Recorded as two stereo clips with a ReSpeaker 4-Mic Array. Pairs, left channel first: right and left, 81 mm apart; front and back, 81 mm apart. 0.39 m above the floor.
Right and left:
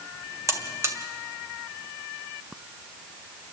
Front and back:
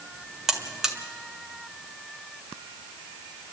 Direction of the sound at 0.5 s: 100° left.